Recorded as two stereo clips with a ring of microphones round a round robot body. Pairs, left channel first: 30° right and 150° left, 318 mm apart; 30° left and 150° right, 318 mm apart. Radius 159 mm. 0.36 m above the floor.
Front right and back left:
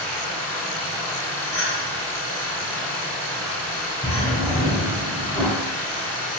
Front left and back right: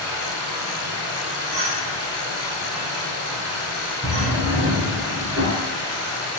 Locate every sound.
0.0 s running water: 95° right, 1.8 m
1.5 s a clink: 100° right, 1.8 m
4.0 s a drawer: 100° right, 1.7 m